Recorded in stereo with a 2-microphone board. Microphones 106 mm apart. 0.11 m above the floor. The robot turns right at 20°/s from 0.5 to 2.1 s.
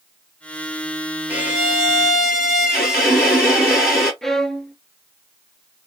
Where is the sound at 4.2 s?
5° left (ahead or behind), 0.6 m.